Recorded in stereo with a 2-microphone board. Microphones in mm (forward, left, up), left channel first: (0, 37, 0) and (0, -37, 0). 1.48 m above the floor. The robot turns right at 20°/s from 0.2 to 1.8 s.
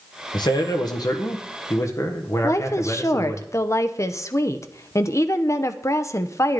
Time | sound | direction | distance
0.3 | a man speaking | 75° left (ahead or behind) | 1.4 m
2.4 | a woman speaking | 45° left (ahead or behind) | 0.7 m